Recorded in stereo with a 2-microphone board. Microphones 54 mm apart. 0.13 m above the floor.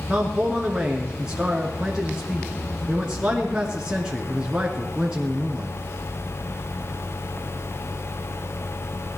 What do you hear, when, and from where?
0.1 s a man speaking: 15° right (ahead or behind), 1.7 m